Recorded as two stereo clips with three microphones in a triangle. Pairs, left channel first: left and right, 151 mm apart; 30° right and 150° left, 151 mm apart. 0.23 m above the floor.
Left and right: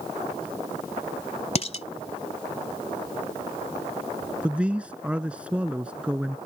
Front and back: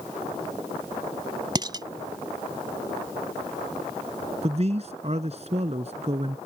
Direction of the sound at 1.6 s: 105° left.